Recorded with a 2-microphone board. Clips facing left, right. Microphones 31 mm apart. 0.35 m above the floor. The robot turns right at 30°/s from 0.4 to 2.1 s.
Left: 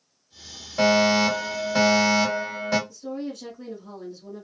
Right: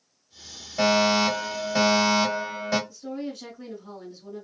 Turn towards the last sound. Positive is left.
turn(degrees=-10)  # may be behind; listen again after turning